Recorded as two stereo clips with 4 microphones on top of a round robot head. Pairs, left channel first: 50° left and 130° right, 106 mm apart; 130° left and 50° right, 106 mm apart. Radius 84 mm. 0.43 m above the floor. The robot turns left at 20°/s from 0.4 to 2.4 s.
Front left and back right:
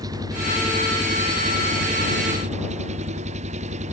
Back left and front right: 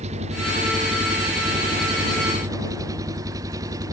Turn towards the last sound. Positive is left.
turn(degrees=-110)